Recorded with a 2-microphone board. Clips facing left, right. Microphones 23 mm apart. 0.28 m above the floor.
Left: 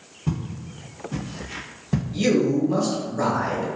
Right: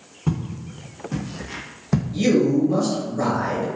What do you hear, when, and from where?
0.3 s footsteps: 65° right (ahead or behind), 1.1 m; by 2.0 s 50° right (ahead or behind), 0.8 m
2.1 s a man speaking: 10° left (ahead or behind), 1.1 m